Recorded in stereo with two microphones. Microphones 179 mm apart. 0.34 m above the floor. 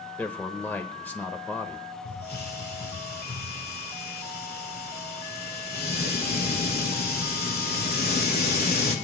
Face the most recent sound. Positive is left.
turn(degrees=60)  # may be behind; listen again after turning